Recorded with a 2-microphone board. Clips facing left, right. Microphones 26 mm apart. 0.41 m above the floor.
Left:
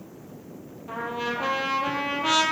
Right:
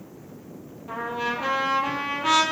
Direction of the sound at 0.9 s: 10° left (ahead or behind).